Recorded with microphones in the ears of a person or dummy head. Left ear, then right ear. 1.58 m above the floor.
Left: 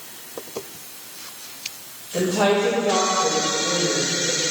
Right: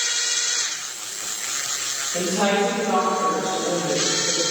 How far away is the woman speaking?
About 6 m.